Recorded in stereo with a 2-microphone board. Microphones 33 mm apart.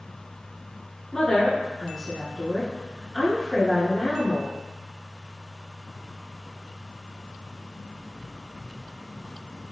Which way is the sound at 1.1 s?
20° left (ahead or behind).